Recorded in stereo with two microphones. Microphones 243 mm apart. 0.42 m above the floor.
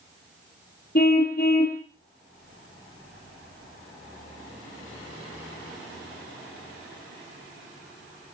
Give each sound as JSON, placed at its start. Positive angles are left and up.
{"t": 0.9, "sound": "a car horn", "side_deg": 40, "distance_m": 4.5}